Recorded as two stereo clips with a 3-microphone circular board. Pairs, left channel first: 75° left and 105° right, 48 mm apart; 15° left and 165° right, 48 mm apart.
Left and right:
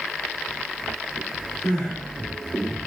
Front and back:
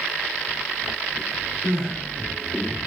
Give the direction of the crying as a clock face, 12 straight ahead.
10 o'clock.